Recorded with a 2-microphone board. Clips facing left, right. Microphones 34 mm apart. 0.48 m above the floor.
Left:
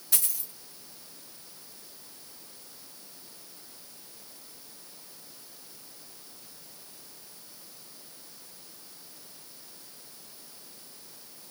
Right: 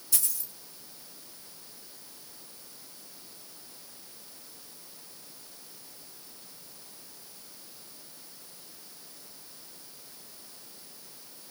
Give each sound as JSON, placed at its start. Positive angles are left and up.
{"t": 0.1, "sound": "a dropped coin", "side_deg": 85, "distance_m": 3.5}